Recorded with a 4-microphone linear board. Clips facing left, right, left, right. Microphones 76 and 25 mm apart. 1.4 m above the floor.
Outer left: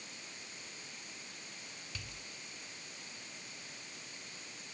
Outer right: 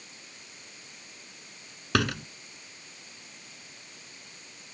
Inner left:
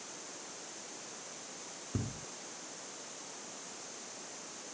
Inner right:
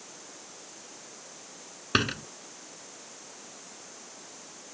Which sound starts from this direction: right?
A door slam, at 1.9 s.